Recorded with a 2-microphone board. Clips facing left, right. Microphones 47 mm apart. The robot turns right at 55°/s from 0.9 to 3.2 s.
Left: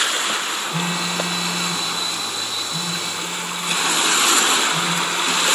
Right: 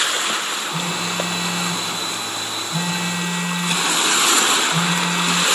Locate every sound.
0.7 s a phone buzzing: 150° left, 1.8 m; by 5.5 s 85° right, 1.8 m